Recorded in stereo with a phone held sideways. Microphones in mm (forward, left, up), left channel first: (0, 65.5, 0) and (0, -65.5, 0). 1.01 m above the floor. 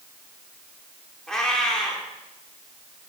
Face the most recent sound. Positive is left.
turn(degrees=5)  # may be behind; listen again after turning